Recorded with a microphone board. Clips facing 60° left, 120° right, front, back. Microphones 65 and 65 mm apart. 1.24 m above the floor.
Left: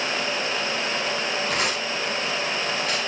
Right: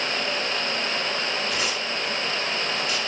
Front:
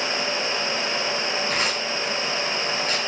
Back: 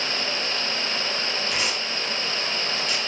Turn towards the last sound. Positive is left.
turn(degrees=45)